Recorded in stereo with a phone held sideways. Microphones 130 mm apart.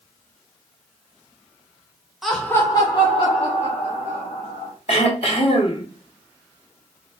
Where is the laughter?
Centre (ahead or behind), 0.9 m; by 4.7 s 70° left (ahead or behind), 2.5 m.